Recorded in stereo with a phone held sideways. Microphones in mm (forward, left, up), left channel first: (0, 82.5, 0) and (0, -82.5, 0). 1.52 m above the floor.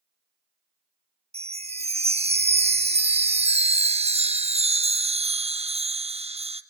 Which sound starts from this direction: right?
A chime, at 1.3 s.